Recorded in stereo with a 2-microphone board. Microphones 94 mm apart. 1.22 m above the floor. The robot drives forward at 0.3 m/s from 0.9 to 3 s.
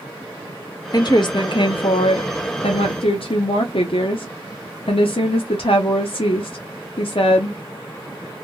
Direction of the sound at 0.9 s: 45° left (ahead or behind).